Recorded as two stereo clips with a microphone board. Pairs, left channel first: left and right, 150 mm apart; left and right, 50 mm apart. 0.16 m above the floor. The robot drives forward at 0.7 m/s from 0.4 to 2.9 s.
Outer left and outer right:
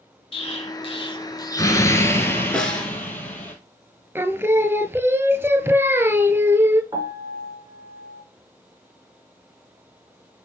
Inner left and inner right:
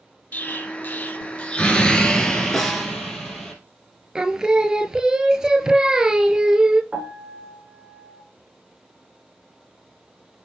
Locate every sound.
0.3 s an explosion: 40° left (ahead or behind), 0.5 m; by 3.5 s 10° left (ahead or behind), 1.7 m
2.5 s a snare drum: 5° left (ahead or behind), 1.3 m
4.2 s singing: 15° right (ahead or behind), 0.5 m
6.9 s a piano: 30° right (ahead or behind), 1.2 m